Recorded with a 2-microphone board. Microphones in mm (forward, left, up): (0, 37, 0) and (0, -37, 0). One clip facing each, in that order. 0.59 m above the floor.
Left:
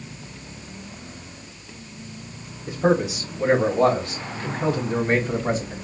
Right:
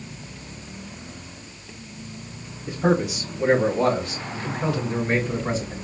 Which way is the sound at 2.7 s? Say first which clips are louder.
Left 1 dB; 25° left (ahead or behind).